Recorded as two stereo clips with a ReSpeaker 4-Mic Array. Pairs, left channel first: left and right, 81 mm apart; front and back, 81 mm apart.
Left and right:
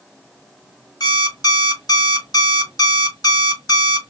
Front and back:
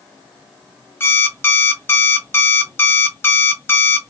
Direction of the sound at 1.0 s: 60° left.